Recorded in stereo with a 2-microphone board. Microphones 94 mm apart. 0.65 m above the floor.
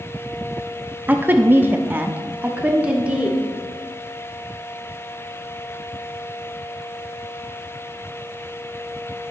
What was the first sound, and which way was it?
A woman speaking, 20° right (ahead or behind).